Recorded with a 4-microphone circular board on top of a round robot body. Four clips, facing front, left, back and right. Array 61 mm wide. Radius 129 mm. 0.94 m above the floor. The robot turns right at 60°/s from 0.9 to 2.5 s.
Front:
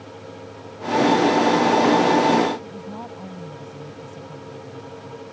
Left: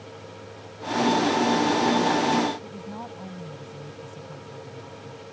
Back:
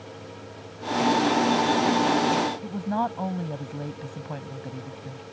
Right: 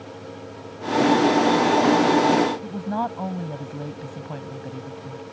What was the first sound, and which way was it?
A woman speaking, 135° right.